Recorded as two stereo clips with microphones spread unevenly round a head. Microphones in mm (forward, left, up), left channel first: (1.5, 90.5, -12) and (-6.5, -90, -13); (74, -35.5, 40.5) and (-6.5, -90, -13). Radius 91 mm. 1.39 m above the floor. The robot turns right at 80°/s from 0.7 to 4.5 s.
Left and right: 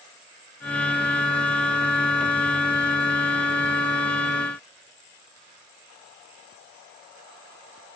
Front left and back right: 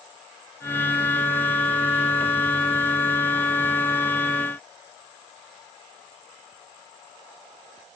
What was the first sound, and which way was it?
Only background noise.